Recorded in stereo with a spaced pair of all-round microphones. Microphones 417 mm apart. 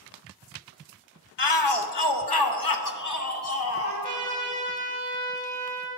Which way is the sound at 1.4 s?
75° left (ahead or behind).